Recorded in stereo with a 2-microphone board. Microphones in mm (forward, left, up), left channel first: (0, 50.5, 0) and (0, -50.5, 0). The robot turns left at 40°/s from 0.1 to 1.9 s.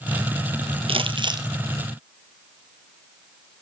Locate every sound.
0.9 s crumpling: 65° right (ahead or behind), 0.9 m; by 1.5 s 45° right (ahead or behind), 0.9 m